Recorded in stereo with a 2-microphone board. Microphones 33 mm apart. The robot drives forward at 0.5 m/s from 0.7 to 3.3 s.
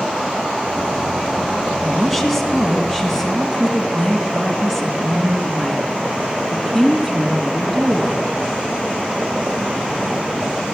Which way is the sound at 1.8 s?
Centre (ahead or behind).